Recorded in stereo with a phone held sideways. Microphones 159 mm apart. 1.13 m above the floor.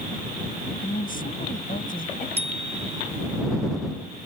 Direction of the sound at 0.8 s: 60° left (ahead or behind).